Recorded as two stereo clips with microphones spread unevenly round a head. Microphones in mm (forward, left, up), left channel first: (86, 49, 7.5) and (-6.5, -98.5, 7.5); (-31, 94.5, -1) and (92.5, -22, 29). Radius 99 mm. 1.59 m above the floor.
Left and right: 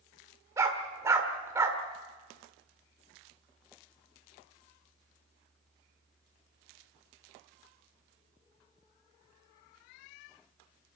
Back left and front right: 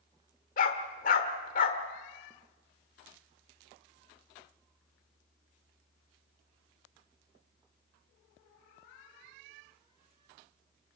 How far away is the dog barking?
About 1.5 m.